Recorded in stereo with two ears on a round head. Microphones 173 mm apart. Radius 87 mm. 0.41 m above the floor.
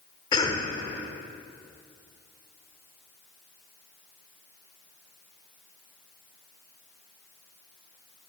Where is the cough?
25° left (ahead or behind), 0.9 m.